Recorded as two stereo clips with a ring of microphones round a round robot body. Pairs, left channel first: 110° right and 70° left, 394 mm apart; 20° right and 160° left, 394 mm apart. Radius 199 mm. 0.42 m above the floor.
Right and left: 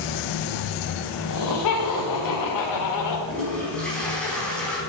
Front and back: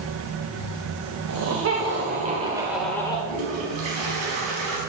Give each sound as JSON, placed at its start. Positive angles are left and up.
{"t": 1.3, "sound": "laughter", "azimuth_deg": -155, "distance_m": 2.0}
{"t": 3.3, "sound": "a toilet flushing", "azimuth_deg": 160, "distance_m": 4.5}